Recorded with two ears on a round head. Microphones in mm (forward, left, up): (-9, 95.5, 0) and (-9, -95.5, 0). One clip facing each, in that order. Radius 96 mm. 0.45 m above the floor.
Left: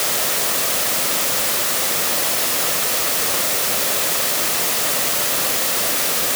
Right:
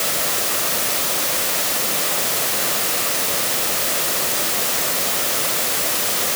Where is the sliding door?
No sliding door in this recording.